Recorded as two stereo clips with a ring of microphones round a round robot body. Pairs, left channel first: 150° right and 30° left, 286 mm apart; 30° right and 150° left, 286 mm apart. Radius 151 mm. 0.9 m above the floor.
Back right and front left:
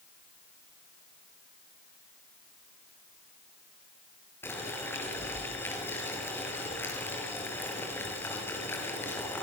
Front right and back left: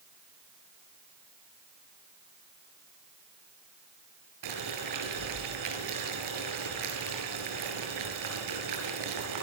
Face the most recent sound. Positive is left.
turn(degrees=125)